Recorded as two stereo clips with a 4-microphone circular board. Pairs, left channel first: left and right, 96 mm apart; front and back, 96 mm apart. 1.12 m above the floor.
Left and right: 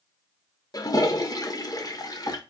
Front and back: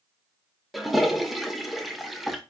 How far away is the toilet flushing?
About 0.7 m.